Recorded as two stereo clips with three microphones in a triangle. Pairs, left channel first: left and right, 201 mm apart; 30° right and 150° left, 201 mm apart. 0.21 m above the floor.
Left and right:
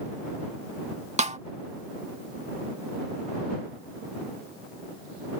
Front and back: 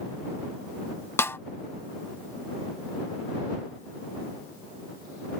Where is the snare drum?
100° right.